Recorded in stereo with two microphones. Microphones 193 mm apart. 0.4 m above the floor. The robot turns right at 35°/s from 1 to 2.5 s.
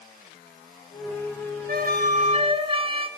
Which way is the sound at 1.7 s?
60° right (ahead or behind).